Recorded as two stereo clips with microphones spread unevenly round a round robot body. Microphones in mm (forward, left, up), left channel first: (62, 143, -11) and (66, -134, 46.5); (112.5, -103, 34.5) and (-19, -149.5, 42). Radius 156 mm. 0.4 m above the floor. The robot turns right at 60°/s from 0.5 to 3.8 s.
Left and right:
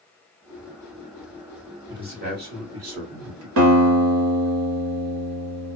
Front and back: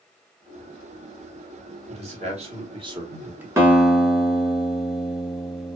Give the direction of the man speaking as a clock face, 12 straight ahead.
6 o'clock.